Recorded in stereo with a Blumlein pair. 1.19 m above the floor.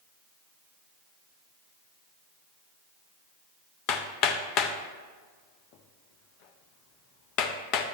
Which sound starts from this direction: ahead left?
Hammering, at 3.9 s.